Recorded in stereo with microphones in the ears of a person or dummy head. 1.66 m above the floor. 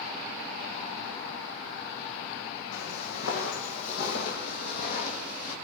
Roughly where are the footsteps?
Left.